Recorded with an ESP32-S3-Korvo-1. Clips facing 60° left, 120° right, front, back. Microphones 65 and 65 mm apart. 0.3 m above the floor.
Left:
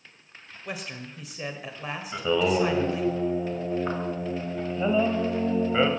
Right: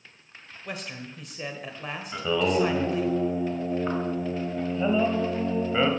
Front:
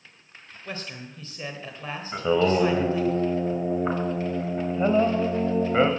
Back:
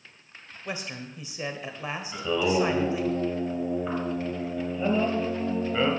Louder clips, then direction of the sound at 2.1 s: Left 1 dB, front 4 dB; 25° right.